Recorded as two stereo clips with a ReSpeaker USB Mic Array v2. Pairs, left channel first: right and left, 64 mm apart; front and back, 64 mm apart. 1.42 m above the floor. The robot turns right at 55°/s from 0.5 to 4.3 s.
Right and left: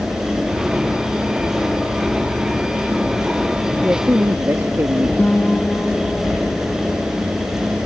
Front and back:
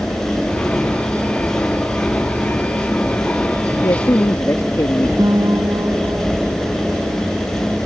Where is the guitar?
155° right.